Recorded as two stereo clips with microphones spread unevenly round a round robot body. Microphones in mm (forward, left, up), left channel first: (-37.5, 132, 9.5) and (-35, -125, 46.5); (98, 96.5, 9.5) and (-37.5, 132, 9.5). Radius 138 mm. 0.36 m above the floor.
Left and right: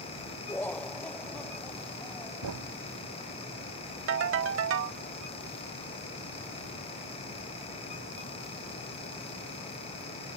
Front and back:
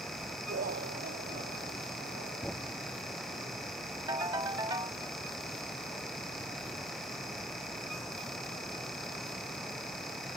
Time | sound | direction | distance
0.5 | laughter | 170° left | ?
2.4 | a thud | 105° right | ?
4.1 | a ringtone | 125° right | ?